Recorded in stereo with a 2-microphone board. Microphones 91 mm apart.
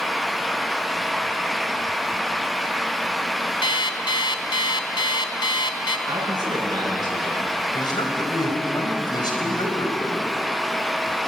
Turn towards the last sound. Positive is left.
turn(degrees=50)  # may be behind; listen again after turning